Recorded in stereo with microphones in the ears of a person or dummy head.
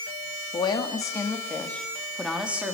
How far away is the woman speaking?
About 2.5 m.